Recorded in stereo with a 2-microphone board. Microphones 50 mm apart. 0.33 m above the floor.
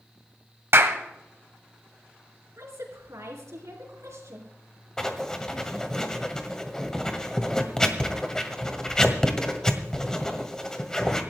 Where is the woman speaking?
75° right (ahead or behind), 4 m.